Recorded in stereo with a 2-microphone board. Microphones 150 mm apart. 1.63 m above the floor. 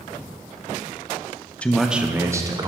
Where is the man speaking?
10° left (ahead or behind), 0.5 m; by 2.7 s 25° right (ahead or behind), 0.9 m.